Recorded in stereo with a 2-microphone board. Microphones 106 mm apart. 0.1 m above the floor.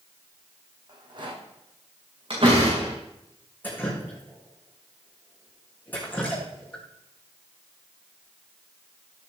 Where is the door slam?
55° right (ahead or behind), 5.5 m.